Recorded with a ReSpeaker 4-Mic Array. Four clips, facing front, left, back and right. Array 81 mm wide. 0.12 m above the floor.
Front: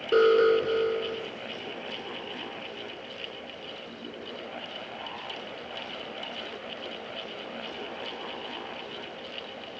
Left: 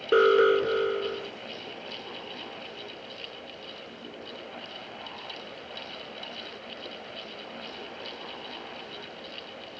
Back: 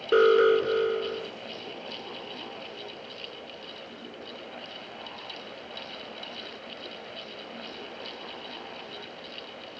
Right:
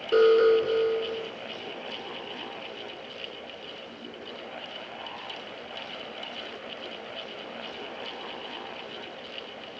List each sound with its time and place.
0.1 s an alarm: 120° left, 1.3 m